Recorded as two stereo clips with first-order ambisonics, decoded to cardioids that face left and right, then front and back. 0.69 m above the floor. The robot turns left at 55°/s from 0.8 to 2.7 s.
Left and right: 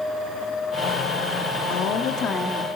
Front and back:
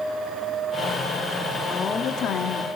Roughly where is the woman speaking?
Left.